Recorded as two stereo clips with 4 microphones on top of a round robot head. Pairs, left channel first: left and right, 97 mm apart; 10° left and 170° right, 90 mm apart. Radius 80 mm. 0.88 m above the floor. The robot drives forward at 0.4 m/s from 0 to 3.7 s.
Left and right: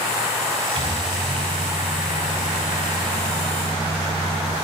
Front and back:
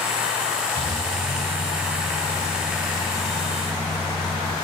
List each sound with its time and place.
0.8 s a microwave: 50° right, 4.5 m; by 4.5 s 65° right, 3.5 m